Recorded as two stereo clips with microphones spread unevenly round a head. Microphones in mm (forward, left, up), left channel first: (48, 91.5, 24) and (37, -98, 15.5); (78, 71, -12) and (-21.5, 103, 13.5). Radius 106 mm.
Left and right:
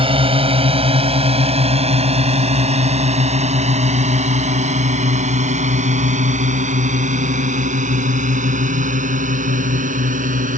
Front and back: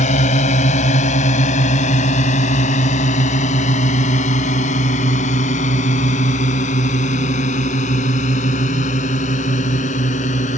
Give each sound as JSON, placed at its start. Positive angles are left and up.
{"t": 0.0, "sound": "a drone", "azimuth_deg": -30}